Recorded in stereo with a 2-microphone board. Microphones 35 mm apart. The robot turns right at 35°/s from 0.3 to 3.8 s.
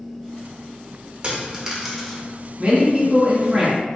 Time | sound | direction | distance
1.2 | a dropped coin | 30° right (ahead or behind) | 0.7 m
2.6 | a man speaking | 30° right | 1.4 m